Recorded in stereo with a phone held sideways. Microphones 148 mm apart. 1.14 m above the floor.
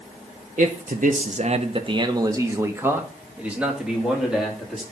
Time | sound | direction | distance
0.6 | a man speaking | 60° right (ahead or behind) | 0.7 m